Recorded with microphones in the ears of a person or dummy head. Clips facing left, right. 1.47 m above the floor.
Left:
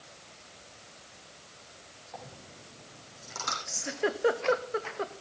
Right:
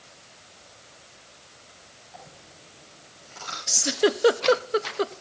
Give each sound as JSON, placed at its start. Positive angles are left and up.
{"t": 2.1, "sound": "a dropped coin", "side_deg": 75, "distance_m": 5.0}
{"t": 3.7, "sound": "a giggle", "side_deg": -50, "distance_m": 0.8}